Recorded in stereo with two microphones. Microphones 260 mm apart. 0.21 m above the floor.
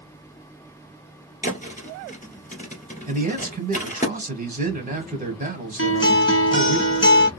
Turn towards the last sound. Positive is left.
turn(degrees=45)  # may be behind; listen again after turning